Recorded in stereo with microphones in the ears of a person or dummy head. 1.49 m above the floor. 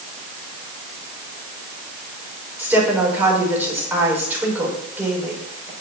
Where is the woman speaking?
5° right (ahead or behind), 5.5 m.